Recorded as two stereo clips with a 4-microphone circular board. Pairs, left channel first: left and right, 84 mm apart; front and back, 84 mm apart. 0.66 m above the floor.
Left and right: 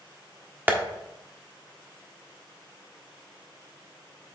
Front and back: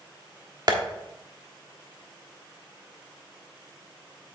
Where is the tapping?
155° right, 1.3 m.